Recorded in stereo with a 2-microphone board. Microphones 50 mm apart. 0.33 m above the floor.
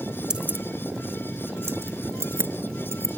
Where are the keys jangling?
15° right (ahead or behind); by 3.1 s 55° right (ahead or behind).